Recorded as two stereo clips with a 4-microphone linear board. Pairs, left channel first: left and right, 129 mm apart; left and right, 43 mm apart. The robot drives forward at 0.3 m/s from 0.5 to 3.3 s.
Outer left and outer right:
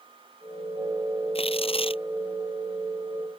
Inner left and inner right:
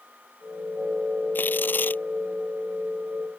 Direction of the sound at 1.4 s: 45° left (ahead or behind).